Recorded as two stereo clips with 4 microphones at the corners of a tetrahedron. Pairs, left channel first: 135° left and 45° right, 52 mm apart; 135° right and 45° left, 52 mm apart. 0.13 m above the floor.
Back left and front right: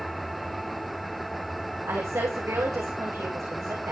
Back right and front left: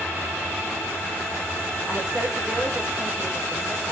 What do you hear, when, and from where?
1.9 s a woman speaking: 35° right, 8 m